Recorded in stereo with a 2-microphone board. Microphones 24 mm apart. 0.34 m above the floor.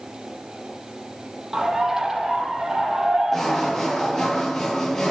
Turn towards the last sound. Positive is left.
turn(degrees=15)  # may be behind; listen again after turning